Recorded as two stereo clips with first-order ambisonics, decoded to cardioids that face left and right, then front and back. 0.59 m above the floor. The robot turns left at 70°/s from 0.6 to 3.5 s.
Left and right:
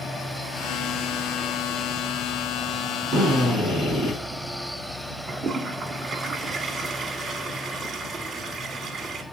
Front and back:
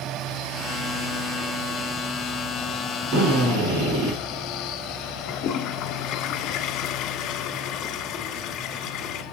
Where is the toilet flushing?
25° right, 1.2 m.